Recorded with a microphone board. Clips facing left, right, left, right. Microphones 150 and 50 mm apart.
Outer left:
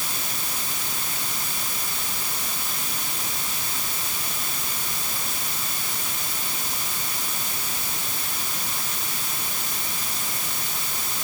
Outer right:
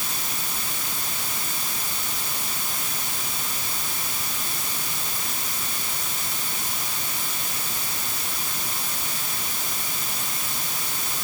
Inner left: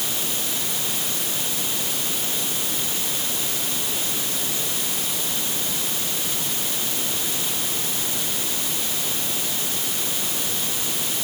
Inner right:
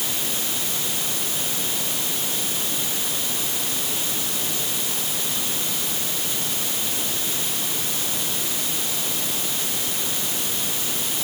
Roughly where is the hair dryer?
I don't hear a hair dryer.